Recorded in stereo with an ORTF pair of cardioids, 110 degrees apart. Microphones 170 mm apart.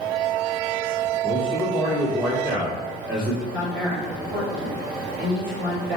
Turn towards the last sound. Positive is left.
turn(degrees=-5)